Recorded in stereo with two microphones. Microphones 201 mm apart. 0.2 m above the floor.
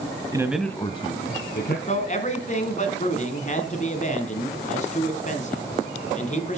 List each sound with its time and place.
0.3 s a man speaking: 20° right (ahead or behind), 1.0 m; by 1.8 s 55° left (ahead or behind), 1.7 m
1.9 s a man speaking: 40° left (ahead or behind), 1.5 m